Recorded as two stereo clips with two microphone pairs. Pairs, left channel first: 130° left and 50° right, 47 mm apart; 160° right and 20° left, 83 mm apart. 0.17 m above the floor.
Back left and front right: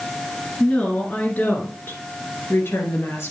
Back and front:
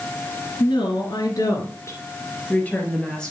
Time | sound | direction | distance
0.6 | a woman speaking | 170° right | 2.5 m